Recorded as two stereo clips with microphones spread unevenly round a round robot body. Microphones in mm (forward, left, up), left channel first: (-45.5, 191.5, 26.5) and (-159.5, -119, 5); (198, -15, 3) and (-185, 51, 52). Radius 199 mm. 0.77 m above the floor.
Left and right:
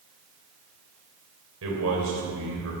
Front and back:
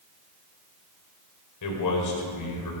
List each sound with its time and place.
1.6 s a man speaking: 55° right, 2.5 m